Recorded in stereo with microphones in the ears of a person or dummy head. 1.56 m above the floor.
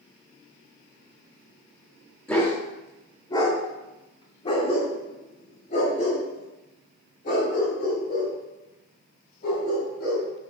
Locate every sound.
2.3 s a dog barking: 5° left (ahead or behind), 2 m; by 10.2 s 60° left (ahead or behind), 6.5 m